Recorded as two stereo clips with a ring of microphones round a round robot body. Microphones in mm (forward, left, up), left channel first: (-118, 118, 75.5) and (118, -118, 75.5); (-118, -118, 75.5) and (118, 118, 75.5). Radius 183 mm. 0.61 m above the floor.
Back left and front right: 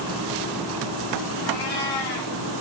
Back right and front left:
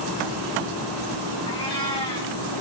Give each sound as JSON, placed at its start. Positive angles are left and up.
{"t": 1.5, "sound": "a cat meowing", "azimuth_deg": 150, "distance_m": 7.5}